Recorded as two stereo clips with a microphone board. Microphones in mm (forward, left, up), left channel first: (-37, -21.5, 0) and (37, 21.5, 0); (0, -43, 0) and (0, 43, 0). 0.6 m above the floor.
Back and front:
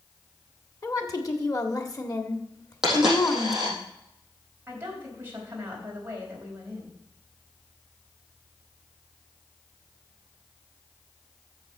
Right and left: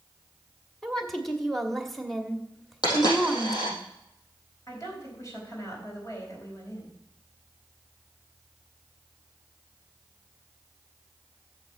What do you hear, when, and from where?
0.8 s a woman speaking: 175° right, 1.4 m
2.8 s a dropped coin: 55° right, 5 m
4.7 s a woman speaking: 35° right, 4 m